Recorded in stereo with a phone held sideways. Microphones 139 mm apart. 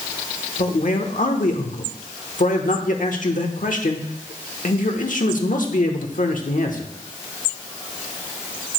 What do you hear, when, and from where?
0.6 s a man speaking: 70° left (ahead or behind), 1.2 m